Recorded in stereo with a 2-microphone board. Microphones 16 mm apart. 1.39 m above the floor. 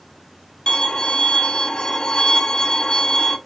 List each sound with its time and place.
0.7 s a violin: 65° left (ahead or behind), 1.3 m